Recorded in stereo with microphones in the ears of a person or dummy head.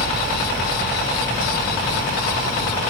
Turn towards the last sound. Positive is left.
turn(degrees=20)  # may be behind; listen again after turning